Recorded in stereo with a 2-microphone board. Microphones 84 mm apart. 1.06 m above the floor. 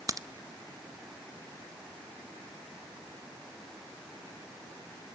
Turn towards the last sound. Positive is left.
turn(degrees=-40)  # may be behind; listen again after turning